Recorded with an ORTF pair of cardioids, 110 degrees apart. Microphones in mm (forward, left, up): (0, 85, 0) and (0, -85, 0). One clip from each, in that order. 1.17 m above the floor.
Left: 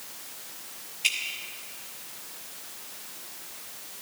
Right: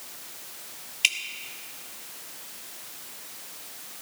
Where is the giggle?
I don't hear a giggle.